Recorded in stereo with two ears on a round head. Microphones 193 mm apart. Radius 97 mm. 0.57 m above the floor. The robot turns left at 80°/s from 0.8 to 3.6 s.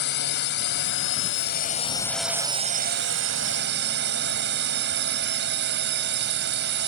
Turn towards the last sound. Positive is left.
turn(degrees=-110)